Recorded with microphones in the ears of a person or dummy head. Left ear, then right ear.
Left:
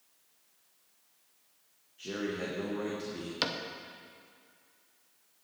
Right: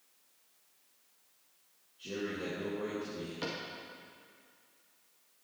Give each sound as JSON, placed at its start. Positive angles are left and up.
{"t": 2.0, "sound": "a man speaking", "side_deg": 50, "distance_m": 1.8}
{"t": 3.4, "sound": "a cupboard door", "side_deg": 50, "distance_m": 0.7}